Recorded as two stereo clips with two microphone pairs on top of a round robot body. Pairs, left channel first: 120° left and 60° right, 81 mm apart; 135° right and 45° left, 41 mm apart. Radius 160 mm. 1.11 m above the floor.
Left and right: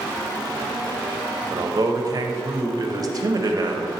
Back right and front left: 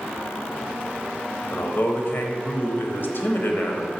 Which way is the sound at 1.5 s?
95° right.